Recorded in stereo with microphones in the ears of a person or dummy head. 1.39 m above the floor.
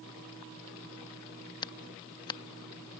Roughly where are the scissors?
Left.